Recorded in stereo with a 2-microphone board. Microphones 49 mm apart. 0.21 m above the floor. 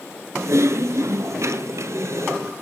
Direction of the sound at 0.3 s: 70° right (ahead or behind).